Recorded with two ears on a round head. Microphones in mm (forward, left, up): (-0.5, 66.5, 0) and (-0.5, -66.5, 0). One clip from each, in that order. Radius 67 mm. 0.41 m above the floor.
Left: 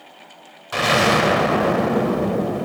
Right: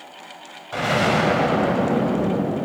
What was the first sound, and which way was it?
An explosion, 65° left (ahead or behind).